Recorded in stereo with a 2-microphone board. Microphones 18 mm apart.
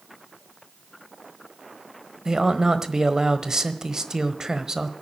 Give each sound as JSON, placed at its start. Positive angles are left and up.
{"t": 2.2, "sound": "a man speaking", "side_deg": -35, "distance_m": 1.2}